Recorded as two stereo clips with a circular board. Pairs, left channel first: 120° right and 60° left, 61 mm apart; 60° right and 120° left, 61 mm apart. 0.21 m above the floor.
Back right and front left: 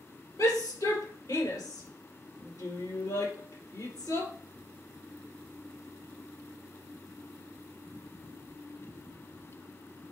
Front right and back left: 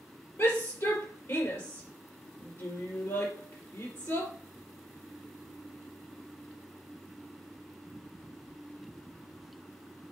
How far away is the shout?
About 4.5 m.